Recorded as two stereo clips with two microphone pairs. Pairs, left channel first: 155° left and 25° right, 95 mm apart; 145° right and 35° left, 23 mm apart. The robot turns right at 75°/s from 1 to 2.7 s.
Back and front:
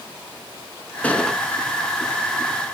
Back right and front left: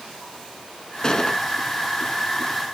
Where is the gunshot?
145° right, 0.9 m; by 1.4 s 115° right, 0.9 m.